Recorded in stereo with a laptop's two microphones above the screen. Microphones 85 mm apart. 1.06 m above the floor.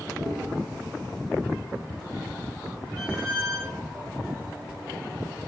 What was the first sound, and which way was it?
Chewing, 30° right (ahead or behind).